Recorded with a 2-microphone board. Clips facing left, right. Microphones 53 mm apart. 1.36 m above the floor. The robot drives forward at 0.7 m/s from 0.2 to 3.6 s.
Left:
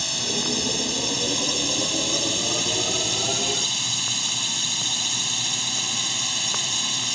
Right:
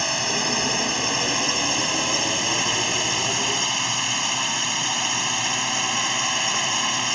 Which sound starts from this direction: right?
A drone, at 0.0 s.